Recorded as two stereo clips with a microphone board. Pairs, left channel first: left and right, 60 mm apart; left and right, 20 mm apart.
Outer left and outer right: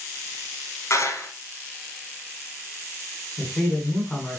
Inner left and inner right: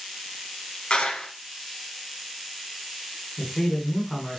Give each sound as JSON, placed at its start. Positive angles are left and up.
{"t": 0.9, "sound": "a clap", "side_deg": 50, "distance_m": 2.5}
{"t": 3.4, "sound": "a man speaking", "side_deg": 20, "distance_m": 2.0}